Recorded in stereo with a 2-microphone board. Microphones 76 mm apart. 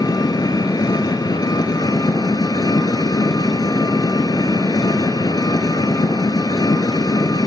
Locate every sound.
0.0 s an engine running: 65° left (ahead or behind), 1.1 m